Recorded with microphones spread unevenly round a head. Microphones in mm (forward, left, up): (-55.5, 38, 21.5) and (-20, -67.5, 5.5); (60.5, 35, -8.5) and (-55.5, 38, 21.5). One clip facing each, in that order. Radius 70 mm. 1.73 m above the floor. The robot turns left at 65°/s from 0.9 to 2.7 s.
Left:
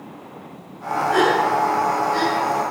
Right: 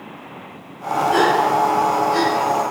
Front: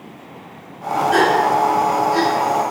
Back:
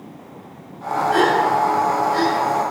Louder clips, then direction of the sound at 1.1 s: Right 1 dB, front 1 dB; 5° left.